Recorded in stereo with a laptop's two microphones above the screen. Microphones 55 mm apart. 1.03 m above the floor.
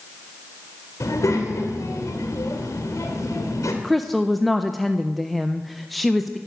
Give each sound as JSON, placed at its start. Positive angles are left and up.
{"t": 1.0, "sound": "a child speaking", "side_deg": 75, "distance_m": 2.5}
{"t": 3.8, "sound": "a woman speaking", "side_deg": 0, "distance_m": 0.5}